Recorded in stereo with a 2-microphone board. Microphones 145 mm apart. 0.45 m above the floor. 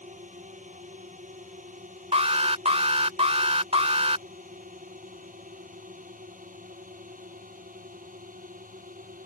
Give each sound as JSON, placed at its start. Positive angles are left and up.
{"t": 0.0, "sound": "a drone", "side_deg": -65}
{"t": 2.1, "sound": "an alarm", "side_deg": -50}